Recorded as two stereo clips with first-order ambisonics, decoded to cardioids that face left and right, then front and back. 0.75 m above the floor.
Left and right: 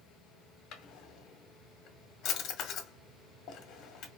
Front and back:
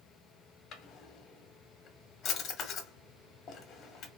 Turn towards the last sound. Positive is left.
turn(degrees=50)